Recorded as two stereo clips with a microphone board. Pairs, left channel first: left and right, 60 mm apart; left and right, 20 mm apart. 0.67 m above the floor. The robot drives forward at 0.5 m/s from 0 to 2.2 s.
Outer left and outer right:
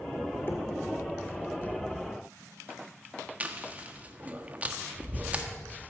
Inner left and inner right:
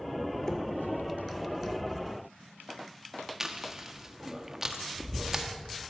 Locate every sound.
0.5 s knocking: 35° left (ahead or behind), 1.8 m
3.4 s chewing: 25° right (ahead or behind), 1.3 m